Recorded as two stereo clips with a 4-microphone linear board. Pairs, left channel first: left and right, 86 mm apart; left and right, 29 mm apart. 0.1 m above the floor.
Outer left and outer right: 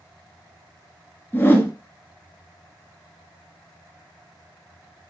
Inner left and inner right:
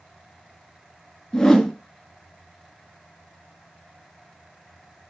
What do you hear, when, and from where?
1.3 s a whoosh: 25° left (ahead or behind), 1.0 m